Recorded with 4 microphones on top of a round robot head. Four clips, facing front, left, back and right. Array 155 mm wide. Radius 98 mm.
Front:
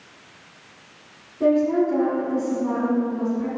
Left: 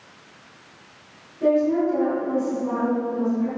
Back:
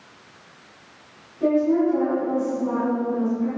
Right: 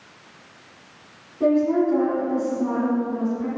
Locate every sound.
1.4 s a woman speaking: 50° right, 3 m